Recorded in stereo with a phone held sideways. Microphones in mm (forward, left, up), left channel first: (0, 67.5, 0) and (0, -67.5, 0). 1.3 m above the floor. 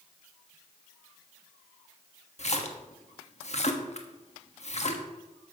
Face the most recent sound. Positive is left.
turn(degrees=55)  # may be behind; listen again after turning